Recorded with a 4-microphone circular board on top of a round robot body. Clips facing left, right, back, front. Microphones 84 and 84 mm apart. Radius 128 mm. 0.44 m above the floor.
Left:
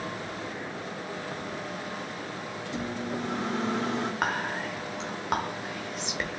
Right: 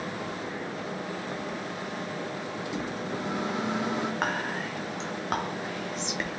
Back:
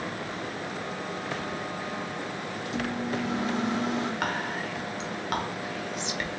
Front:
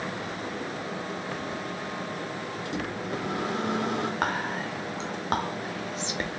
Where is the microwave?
15° right, 1.3 m.